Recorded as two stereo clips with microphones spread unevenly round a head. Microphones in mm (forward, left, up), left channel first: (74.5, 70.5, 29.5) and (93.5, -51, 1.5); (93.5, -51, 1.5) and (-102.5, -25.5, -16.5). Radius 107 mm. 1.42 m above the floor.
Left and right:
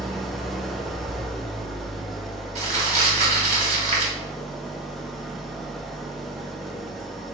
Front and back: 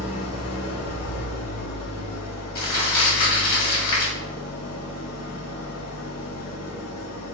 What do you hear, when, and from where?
0.0 s an engine running: 10° left, 0.7 m
2.5 s crumpling: 50° right, 1.6 m